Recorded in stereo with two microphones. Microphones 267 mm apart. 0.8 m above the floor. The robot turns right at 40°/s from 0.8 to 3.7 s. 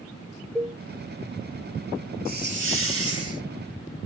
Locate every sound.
0.6 s a cowbell: centre (ahead or behind), 0.5 m
2.2 s a hiss: 145° right, 1.3 m; by 3.4 s 95° right, 1.3 m